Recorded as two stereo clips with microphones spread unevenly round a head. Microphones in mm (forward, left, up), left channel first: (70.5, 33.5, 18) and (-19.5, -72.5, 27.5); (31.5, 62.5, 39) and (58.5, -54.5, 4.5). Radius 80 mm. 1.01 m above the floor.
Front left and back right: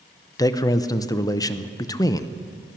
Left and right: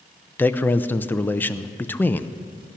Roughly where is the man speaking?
Ahead.